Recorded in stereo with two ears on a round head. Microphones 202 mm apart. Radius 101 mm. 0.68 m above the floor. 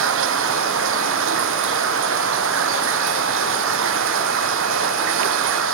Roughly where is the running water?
Right.